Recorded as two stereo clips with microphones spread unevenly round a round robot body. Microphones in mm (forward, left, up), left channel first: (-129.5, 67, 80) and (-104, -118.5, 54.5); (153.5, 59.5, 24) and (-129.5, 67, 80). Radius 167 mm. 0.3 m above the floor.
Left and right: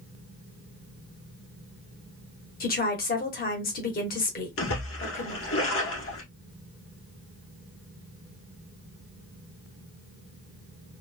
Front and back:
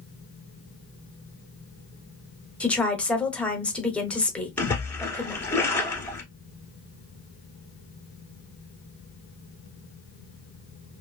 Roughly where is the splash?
Left.